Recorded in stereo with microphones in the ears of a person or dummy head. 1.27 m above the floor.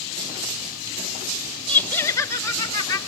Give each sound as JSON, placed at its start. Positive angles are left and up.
{"t": 1.7, "sound": "laughter", "side_deg": 10, "distance_m": 1.1}